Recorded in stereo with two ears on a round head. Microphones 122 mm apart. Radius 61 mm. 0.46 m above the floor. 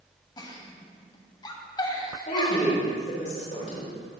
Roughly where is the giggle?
Left.